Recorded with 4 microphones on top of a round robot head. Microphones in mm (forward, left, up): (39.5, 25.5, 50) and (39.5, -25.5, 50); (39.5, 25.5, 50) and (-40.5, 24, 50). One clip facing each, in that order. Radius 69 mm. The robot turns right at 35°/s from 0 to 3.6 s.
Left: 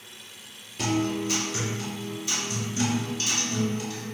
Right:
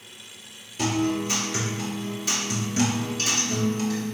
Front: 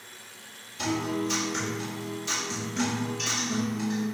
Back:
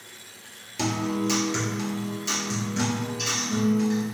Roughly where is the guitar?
Behind.